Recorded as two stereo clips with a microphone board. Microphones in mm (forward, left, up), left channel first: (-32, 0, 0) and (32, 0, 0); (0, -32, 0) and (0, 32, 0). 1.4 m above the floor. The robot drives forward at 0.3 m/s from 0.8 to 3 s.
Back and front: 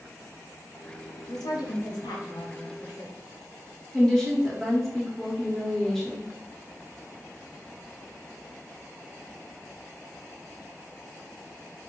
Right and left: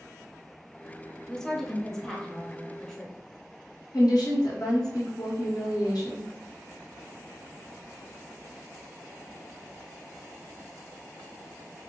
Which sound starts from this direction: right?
A woman speaking, at 3.9 s.